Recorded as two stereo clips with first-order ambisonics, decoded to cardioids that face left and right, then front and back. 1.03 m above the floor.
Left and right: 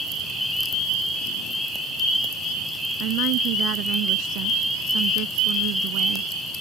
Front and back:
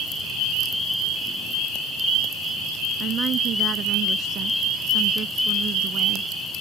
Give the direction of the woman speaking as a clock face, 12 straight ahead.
4 o'clock.